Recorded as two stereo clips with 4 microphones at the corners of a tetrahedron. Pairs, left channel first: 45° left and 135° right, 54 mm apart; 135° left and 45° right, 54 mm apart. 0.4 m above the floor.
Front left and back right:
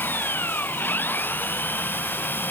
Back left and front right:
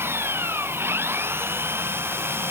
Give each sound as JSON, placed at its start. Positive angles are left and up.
{"t": 0.0, "sound": "an engine running", "azimuth_deg": -5}